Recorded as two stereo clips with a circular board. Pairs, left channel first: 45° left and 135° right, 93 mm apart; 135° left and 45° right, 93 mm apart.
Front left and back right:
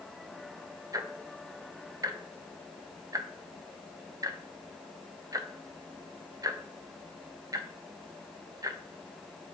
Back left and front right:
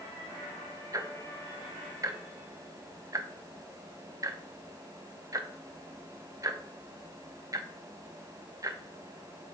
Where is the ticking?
90° right, 0.6 m.